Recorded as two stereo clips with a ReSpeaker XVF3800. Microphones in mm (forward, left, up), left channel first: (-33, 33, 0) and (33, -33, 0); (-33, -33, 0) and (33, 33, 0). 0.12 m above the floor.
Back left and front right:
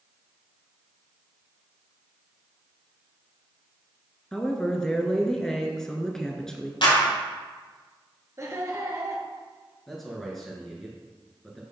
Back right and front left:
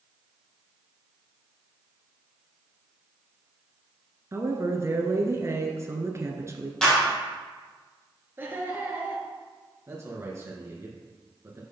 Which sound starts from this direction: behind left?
A clap, at 6.8 s.